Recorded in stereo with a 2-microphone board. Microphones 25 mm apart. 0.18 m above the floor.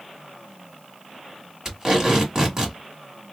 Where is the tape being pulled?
25° right (ahead or behind), 1.7 m.